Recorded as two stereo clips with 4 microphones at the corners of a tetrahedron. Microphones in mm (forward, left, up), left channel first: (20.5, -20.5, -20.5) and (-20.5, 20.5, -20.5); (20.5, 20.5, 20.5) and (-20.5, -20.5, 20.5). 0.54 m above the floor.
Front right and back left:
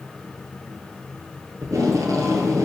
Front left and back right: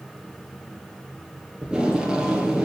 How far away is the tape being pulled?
About 1.7 m.